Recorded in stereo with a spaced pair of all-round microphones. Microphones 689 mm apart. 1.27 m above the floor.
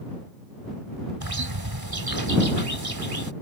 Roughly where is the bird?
Right.